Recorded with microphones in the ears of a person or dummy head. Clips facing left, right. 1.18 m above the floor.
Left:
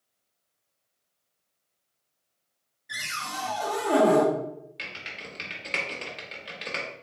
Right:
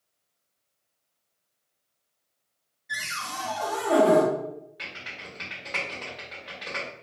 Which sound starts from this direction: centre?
A cupboard door, at 2.9 s.